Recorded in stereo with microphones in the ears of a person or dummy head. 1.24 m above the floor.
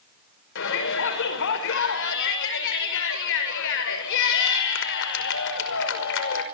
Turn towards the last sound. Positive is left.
turn(degrees=75)  # may be behind; listen again after turning